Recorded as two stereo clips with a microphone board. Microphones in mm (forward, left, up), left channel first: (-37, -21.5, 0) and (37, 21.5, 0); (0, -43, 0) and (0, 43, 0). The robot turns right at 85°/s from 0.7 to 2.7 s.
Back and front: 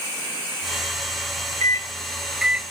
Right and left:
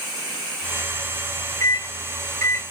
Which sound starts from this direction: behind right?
A microwave, at 1.6 s.